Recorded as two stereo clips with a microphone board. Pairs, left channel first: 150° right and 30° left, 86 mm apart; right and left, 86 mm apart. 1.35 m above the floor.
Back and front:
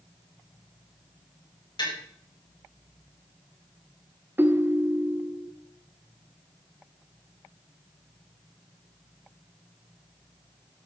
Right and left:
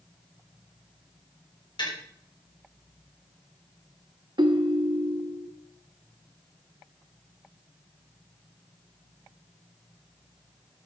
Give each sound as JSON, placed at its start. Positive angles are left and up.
{"t": 1.8, "sound": "tapping", "azimuth_deg": -120, "distance_m": 7.0}
{"t": 4.4, "sound": "a ringtone", "azimuth_deg": 90, "distance_m": 1.2}